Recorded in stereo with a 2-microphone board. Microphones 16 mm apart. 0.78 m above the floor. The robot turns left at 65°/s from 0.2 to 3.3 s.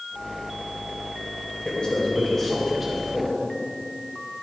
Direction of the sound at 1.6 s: 75° left.